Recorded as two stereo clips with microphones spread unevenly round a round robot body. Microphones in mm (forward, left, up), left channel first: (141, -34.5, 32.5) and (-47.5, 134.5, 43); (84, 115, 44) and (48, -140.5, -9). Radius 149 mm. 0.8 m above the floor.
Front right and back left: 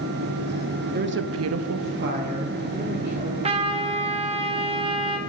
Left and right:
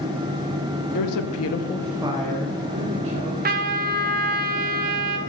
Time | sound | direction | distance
0.9 | a woman speaking | 85° left | 1.2 m
3.4 | a trumpet | 150° right | 0.7 m